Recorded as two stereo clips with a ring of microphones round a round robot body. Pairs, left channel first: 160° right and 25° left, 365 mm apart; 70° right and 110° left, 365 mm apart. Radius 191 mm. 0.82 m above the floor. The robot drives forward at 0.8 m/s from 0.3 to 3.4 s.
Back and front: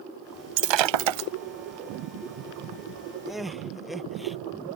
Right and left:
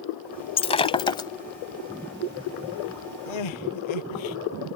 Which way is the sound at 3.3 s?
65° right.